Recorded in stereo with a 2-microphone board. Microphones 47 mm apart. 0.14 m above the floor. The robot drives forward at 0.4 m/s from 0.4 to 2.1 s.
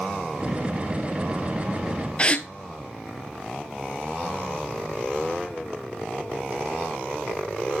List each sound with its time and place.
2.2 s a gasp: 25° left (ahead or behind), 0.6 m